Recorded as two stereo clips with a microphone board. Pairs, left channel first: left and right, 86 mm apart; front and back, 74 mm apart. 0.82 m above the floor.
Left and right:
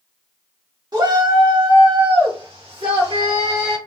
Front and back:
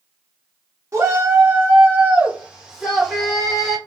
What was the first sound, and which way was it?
A shout, 130° right.